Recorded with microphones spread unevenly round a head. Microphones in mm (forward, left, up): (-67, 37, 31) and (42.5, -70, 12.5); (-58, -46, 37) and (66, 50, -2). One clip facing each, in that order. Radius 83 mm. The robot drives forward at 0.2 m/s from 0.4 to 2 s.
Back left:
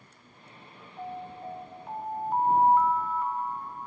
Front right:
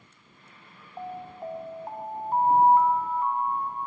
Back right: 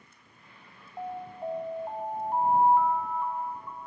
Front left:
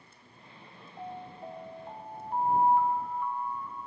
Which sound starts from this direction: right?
An alarm, at 1.0 s.